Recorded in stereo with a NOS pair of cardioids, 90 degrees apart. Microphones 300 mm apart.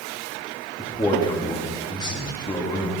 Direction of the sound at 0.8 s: 15° left.